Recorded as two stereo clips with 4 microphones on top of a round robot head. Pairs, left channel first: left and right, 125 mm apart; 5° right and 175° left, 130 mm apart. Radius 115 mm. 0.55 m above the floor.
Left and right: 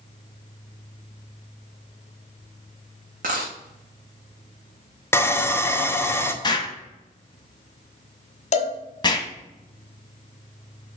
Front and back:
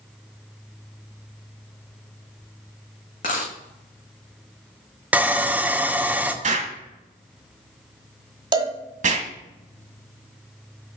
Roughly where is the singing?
I don't hear singing.